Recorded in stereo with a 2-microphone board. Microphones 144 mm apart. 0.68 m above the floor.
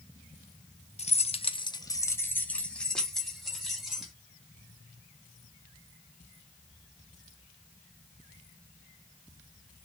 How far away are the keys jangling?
About 0.7 m.